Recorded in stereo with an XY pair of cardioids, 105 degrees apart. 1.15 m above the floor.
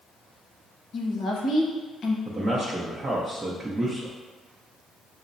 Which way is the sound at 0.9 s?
60° left.